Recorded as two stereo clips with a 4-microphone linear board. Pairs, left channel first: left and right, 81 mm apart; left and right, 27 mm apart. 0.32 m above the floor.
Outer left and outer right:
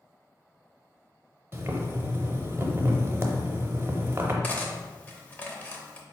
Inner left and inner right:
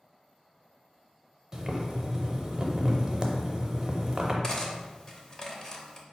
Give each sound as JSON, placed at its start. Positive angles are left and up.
{"t": 1.5, "sound": "boiling", "side_deg": -30, "distance_m": 0.6}
{"t": 4.4, "sound": "cutlery clinking", "side_deg": 20, "distance_m": 0.6}